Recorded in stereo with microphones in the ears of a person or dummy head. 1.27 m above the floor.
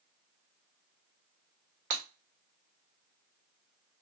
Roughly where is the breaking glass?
Right.